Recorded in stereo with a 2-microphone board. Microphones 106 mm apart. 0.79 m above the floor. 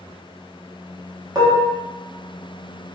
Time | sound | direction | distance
1.4 | dishes clattering | 35° right (ahead or behind) | 0.8 m